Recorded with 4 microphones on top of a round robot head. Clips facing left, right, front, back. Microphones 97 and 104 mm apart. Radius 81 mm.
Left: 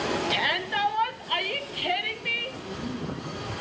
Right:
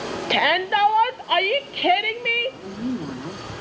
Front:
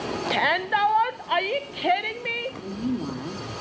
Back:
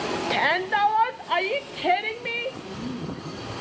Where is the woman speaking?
55° right, 3 m.